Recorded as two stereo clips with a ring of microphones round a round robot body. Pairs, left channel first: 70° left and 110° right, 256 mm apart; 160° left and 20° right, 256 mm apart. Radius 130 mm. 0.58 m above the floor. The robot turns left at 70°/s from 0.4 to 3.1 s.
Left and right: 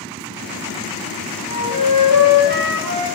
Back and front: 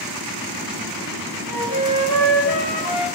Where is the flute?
65° left, 4.5 m; by 3.1 s 45° right, 4.5 m.